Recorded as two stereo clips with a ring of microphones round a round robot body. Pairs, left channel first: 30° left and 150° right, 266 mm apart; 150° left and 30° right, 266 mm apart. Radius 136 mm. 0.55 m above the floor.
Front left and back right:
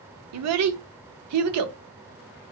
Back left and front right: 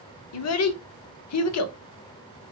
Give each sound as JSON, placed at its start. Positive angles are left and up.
{"t": 0.3, "sound": "a child speaking", "azimuth_deg": 180, "distance_m": 0.5}